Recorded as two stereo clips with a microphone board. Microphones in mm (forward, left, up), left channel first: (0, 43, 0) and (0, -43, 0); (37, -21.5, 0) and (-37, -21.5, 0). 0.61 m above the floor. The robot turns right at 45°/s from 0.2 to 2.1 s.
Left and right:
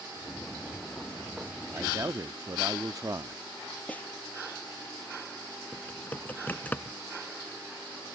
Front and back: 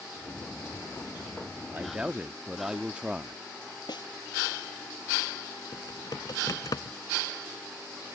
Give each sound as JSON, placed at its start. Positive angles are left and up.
{"t": 1.7, "sound": "a man speaking", "azimuth_deg": -125}
{"t": 3.9, "sound": "a snare drum", "azimuth_deg": 20}
{"t": 5.7, "sound": "typing on a keyboard", "azimuth_deg": 20}